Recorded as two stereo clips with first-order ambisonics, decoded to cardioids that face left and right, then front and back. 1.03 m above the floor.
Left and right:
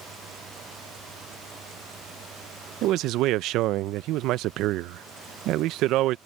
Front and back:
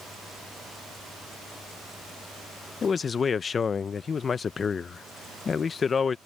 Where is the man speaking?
65° right.